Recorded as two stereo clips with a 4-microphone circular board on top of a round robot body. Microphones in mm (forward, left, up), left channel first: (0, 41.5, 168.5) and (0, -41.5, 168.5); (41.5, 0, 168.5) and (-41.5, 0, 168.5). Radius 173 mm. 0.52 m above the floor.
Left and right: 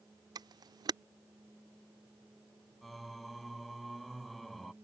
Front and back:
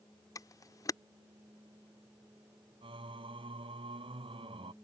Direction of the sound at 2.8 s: Straight behind.